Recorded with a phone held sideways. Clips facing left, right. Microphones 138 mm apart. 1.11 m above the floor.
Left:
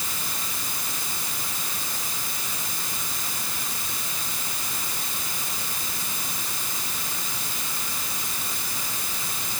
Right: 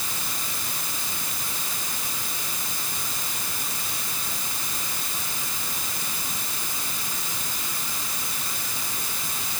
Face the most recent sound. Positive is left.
No sound to turn to.